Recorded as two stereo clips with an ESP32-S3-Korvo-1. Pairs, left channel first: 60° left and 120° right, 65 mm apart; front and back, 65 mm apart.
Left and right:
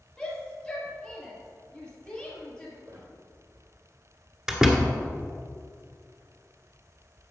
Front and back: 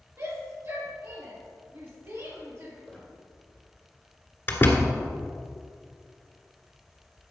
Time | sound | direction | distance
0.2 | a shout | 135° left | 3.5 m
2.9 | a squeak | 90° right | 2.5 m
4.5 | a door slam | 45° right | 1.3 m